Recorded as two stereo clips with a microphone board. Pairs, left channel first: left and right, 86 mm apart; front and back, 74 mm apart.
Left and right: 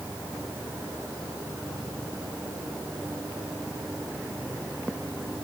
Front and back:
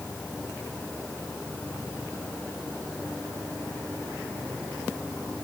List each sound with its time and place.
Only background noise.